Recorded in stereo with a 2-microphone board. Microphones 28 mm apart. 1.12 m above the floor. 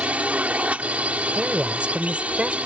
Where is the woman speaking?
50° right (ahead or behind).